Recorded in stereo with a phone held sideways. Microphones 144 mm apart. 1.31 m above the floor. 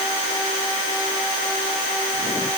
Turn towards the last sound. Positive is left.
No sound to turn to.